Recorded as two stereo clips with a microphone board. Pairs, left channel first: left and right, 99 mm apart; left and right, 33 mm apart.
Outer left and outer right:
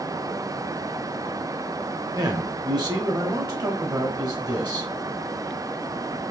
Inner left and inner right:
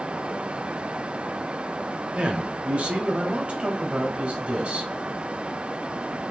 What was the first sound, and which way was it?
A man speaking, 45° right (ahead or behind).